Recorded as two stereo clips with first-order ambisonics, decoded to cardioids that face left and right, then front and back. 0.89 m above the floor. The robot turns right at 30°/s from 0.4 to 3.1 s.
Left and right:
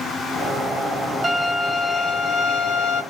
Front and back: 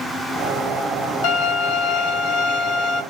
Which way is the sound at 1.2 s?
5° right.